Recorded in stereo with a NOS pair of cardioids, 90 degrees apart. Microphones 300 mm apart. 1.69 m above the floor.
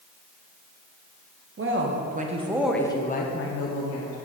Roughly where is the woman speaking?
Ahead right.